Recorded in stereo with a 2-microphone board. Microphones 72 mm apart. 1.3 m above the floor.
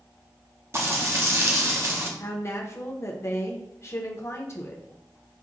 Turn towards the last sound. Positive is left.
turn(degrees=40)  # may be behind; listen again after turning